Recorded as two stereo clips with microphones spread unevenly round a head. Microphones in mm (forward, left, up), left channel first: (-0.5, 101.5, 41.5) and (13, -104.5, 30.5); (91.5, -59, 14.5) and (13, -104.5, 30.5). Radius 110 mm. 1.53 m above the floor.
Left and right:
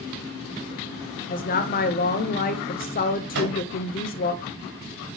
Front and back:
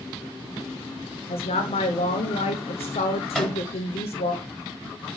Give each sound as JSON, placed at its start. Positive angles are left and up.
{"t": 1.3, "sound": "a woman speaking", "azimuth_deg": 45, "distance_m": 0.7}
{"t": 3.3, "sound": "a microwave", "azimuth_deg": -50, "distance_m": 4.0}